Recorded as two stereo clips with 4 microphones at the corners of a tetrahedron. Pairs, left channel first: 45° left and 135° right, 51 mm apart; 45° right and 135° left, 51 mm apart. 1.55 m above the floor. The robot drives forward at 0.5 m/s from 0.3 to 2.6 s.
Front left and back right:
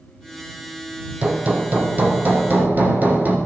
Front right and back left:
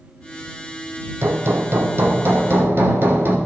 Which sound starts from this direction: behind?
Hammering, at 1.2 s.